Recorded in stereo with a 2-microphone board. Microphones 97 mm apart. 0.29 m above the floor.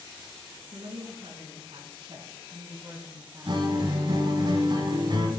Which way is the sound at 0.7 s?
75° right (ahead or behind).